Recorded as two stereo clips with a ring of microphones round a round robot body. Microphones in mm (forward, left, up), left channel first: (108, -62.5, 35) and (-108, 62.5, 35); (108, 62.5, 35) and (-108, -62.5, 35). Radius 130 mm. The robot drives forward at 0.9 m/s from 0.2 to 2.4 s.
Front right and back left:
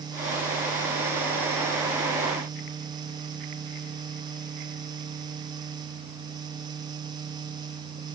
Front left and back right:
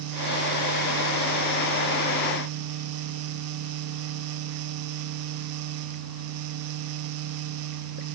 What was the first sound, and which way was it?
Only background noise.